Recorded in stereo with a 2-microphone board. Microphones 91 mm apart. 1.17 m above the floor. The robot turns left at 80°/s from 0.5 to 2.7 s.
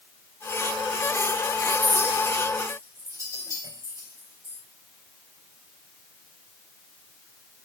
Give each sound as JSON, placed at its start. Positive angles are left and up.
{"t": 1.8, "sound": "a clink", "side_deg": 40, "distance_m": 3.5}